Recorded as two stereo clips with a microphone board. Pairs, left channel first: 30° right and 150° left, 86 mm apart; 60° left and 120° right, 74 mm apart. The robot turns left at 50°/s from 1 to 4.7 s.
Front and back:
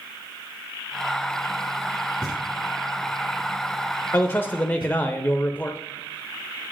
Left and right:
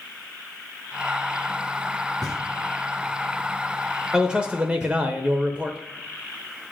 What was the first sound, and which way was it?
Knocking, 80° right.